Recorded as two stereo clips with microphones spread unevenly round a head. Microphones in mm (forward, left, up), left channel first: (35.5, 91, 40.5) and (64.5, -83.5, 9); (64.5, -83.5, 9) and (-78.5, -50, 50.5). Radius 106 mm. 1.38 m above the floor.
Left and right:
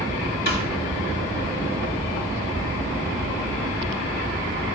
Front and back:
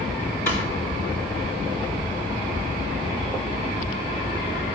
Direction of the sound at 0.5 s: 65° left.